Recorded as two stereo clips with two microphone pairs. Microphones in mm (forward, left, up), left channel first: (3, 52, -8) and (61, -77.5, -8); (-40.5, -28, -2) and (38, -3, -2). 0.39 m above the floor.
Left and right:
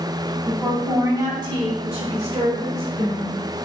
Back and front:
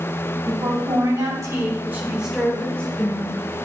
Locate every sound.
0.5 s a woman speaking: 5° left, 3.5 m; by 3.4 s 110° right, 2.5 m